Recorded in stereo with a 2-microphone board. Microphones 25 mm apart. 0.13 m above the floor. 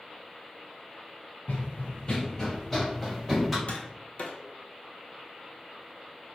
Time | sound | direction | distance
1.5 | running footsteps | 80° left | 0.7 m
3.7 | tapping | 60° left (ahead or behind) | 0.8 m